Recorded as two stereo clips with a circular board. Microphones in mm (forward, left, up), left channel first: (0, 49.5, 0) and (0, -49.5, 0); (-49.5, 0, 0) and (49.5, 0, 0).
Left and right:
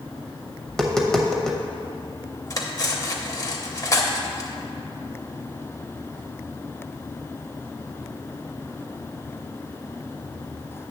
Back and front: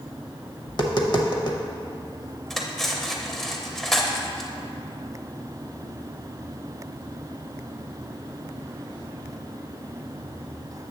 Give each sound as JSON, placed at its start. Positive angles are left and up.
{"t": 0.7, "sound": "tapping", "azimuth_deg": 175, "distance_m": 0.8}
{"t": 2.5, "sound": "cutlery clinking", "azimuth_deg": 95, "distance_m": 0.7}